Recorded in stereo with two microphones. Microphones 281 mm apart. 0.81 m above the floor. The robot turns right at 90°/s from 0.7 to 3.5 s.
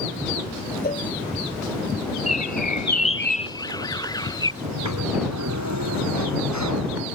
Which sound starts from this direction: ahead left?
A bird, at 2.3 s.